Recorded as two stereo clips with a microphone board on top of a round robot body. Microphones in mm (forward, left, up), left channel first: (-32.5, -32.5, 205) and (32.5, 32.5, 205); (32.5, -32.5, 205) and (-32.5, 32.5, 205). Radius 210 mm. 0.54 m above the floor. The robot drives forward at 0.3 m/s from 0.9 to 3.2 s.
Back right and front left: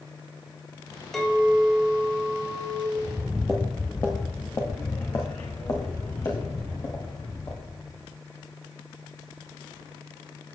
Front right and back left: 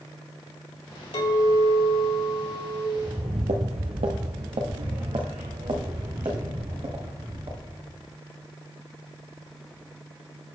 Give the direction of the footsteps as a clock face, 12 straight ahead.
9 o'clock.